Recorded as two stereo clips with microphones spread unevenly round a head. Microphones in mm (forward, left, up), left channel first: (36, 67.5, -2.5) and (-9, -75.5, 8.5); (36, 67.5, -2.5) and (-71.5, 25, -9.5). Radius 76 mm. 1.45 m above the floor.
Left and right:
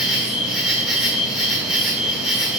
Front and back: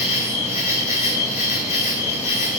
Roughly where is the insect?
Ahead.